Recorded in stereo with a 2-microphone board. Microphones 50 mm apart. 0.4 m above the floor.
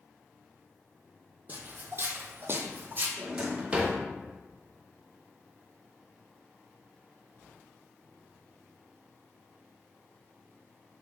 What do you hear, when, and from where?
1.5 s footsteps: 35° right (ahead or behind), 0.7 m; by 3.1 s 40° right (ahead or behind), 0.9 m
3.2 s a drawer: 25° right (ahead or behind), 0.6 m